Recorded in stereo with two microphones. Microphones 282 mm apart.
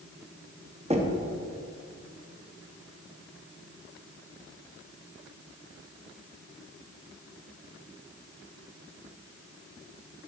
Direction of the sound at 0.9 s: 25° right (ahead or behind).